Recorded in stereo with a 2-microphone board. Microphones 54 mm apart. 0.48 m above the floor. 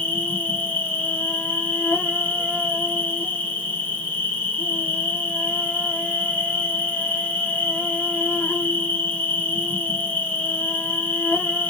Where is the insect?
30° left (ahead or behind), 0.9 m.